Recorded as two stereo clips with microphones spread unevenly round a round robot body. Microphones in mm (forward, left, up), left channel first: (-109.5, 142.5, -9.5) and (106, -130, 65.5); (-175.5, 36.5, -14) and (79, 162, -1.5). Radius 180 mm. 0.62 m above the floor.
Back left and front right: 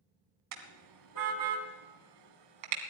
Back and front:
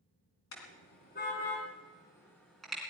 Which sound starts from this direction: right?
A car horn, at 0.5 s.